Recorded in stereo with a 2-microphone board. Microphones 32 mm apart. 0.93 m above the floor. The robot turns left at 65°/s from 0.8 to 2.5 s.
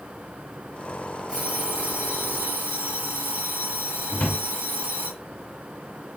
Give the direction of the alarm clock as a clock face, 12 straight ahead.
1 o'clock.